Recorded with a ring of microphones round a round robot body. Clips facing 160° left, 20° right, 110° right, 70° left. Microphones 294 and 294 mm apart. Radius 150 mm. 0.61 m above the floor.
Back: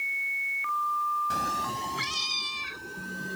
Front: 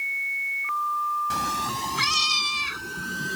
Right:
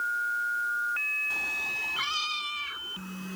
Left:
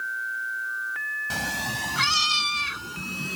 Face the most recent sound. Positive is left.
turn(degrees=35)